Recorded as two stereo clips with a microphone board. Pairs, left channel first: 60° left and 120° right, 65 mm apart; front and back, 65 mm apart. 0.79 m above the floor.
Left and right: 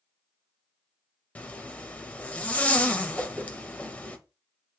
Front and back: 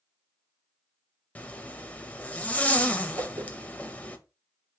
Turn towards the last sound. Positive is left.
turn(degrees=170)